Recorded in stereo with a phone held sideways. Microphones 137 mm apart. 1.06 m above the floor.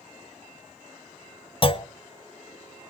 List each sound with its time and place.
1.6 s a clunk: 40° left (ahead or behind), 0.7 m